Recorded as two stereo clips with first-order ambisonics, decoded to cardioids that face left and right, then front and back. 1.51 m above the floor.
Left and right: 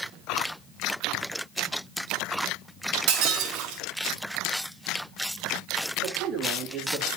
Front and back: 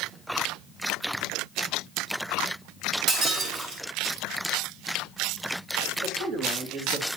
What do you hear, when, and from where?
3.1 s breaking glass: 125° right, 3.5 m
6.0 s a man speaking: 140° right, 4.5 m